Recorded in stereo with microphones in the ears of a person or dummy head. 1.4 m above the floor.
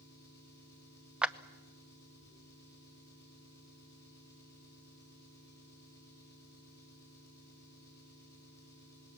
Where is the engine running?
20° left (ahead or behind), 6.5 m.